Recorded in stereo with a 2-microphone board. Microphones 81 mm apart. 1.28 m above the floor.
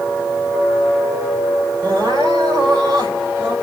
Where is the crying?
80° right, 3.5 m.